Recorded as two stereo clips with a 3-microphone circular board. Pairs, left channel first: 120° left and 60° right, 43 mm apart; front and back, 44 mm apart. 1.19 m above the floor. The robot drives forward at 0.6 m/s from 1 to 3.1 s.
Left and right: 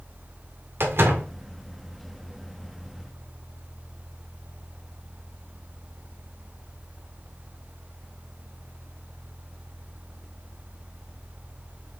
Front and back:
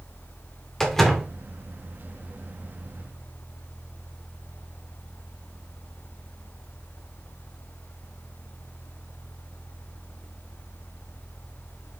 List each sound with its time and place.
0.8 s a door slam: 85° right, 2.0 m; by 1.3 s 90° right, 1.9 m